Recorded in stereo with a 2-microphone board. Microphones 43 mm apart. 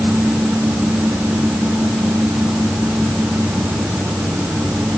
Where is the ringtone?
I don't hear a ringtone.